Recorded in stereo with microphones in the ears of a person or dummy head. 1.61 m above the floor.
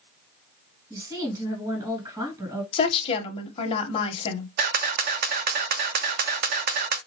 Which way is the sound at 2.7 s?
30° left (ahead or behind).